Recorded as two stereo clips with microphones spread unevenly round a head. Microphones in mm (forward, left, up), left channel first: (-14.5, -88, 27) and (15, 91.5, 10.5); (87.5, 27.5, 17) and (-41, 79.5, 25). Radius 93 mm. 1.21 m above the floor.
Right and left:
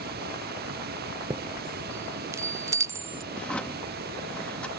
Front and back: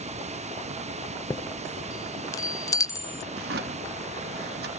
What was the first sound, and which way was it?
Running water, 120° left.